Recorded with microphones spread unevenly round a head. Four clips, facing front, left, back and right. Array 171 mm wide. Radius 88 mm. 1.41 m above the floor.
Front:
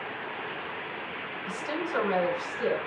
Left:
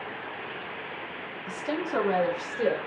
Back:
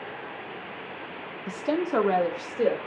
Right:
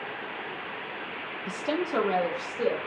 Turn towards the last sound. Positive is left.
turn(degrees=165)